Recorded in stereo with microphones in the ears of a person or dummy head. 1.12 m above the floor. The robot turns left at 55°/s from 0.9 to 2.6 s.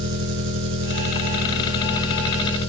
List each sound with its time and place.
0.0 s an engine running: 115° right, 6 m; by 2.7 s 155° left, 6 m